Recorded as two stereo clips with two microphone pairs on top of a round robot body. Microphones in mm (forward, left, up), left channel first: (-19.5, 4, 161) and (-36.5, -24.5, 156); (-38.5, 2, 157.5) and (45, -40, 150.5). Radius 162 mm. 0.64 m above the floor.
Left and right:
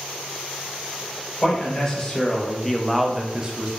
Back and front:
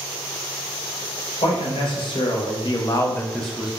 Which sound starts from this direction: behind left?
A man speaking, at 1.4 s.